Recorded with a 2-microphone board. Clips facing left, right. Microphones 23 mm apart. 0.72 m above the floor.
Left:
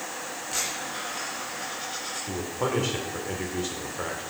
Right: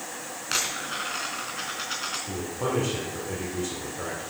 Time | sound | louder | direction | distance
0.5 | a dropped coin | right 4 dB | 65° right (ahead or behind) | 3 m
2.3 | a man speaking | left 3 dB | 25° left (ahead or behind) | 2.5 m